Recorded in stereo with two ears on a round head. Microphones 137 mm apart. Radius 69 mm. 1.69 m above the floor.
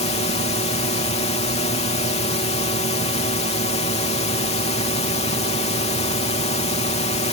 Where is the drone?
40° left (ahead or behind).